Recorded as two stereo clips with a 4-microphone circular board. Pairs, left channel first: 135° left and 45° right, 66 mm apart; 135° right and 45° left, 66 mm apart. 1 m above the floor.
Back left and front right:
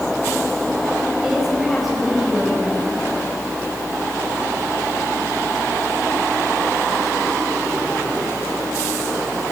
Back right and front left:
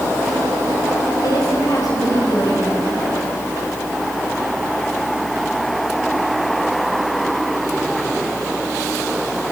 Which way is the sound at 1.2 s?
135° right.